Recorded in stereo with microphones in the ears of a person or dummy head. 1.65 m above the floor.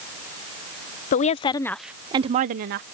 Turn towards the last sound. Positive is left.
turn(degrees=-55)  # may be behind; listen again after turning